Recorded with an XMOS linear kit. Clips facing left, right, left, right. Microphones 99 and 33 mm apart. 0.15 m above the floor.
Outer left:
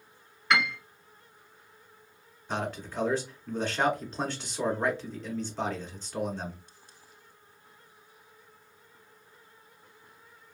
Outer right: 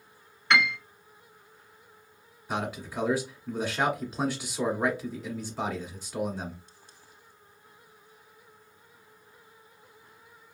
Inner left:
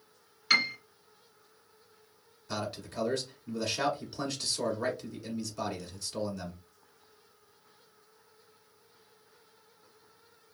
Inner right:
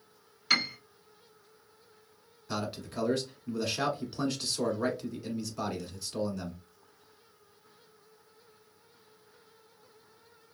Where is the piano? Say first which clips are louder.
Outer right 2 dB, inner left 2 dB; 5° left (ahead or behind), 1.0 m.